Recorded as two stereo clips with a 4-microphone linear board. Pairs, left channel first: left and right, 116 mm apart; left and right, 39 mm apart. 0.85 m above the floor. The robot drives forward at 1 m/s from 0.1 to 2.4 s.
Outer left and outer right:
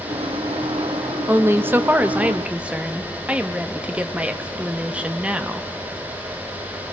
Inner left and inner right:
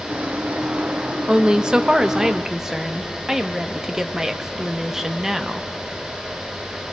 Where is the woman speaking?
20° right (ahead or behind), 0.7 m; by 5.7 s 10° right (ahead or behind), 1.2 m.